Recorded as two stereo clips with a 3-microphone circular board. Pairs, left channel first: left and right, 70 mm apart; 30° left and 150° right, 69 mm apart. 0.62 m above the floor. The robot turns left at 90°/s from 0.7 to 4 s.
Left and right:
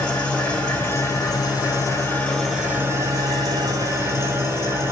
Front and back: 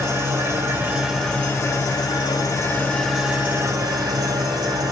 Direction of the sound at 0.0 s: 160° left.